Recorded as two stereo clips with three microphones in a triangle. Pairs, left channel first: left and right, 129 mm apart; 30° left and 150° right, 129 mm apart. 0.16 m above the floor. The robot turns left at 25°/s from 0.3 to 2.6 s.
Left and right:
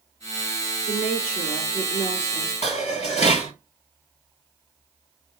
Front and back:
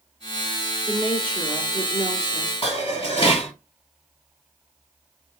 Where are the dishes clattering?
70° left, 2.5 m.